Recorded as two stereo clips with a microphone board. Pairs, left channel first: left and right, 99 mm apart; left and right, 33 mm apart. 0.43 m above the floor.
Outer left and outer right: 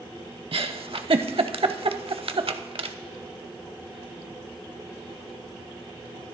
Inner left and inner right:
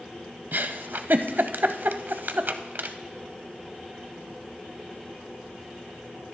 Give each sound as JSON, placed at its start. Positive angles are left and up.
{"t": 0.5, "sound": "a giggle", "side_deg": -70, "distance_m": 0.6}